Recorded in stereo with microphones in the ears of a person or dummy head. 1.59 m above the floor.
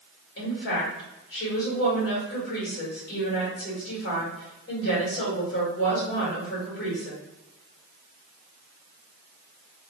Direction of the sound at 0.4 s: 60° left (ahead or behind).